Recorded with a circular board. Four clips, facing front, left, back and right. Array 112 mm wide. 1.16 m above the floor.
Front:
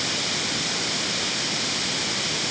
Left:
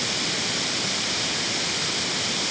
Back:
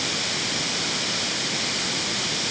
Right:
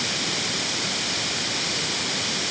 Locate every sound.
Only background noise.